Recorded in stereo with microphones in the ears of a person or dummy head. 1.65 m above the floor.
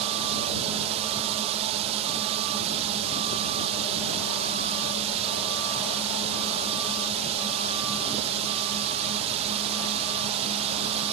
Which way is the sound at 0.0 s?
40° right (ahead or behind).